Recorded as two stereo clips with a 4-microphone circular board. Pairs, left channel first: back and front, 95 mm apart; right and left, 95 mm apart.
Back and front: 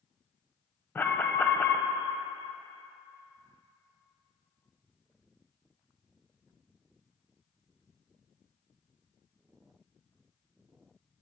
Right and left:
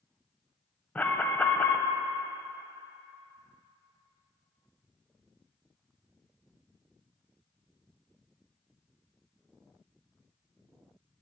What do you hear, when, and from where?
0.9 s an alarm: 140° right, 0.6 m